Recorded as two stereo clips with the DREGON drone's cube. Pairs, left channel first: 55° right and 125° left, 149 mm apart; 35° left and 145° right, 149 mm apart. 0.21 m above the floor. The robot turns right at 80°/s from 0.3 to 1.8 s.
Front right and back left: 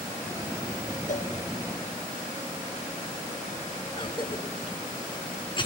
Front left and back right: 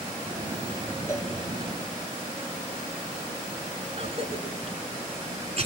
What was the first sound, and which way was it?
A cowbell, 35° right.